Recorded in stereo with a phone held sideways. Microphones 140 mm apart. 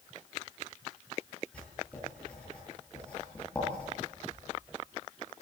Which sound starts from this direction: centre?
Writing, at 1.5 s.